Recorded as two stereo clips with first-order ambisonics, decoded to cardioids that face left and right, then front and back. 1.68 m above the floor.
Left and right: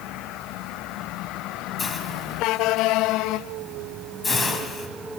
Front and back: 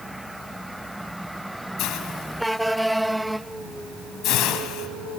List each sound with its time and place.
1.8 s a hiss: 25° left, 3 m